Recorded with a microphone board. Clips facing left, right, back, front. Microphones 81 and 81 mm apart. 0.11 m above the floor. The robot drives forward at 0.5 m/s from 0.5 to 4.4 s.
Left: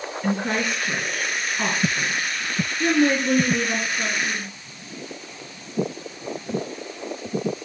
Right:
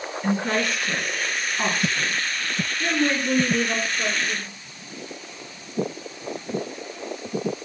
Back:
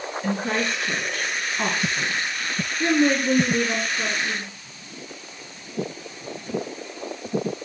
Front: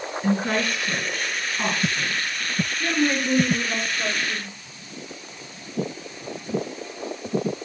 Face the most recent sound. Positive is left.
turn(degrees=165)